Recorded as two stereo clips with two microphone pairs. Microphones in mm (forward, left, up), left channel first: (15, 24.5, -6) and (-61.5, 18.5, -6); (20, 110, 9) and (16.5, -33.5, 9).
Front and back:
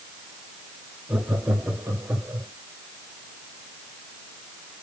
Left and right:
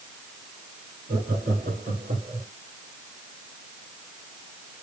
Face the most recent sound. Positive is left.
turn(degrees=-110)